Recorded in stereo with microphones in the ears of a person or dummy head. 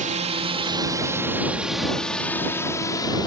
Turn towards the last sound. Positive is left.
turn(degrees=15)  # may be behind; listen again after turning